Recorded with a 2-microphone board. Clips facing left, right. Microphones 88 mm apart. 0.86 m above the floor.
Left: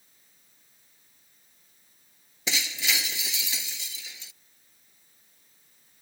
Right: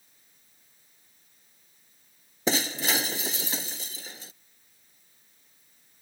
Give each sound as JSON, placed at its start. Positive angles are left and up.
{"t": 2.5, "sound": "breaking glass", "side_deg": -40}